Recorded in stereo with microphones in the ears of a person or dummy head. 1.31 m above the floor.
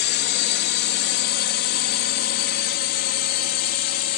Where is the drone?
55° left (ahead or behind); by 4.2 s 50° left (ahead or behind).